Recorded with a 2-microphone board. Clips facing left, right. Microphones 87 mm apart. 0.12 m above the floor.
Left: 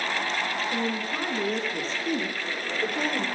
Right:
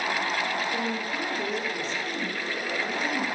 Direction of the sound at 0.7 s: 30° left (ahead or behind).